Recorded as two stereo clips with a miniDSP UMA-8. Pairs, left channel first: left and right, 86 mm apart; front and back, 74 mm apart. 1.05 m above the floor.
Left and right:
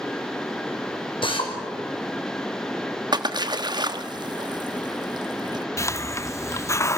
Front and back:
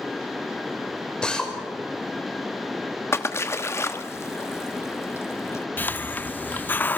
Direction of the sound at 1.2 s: 80° left.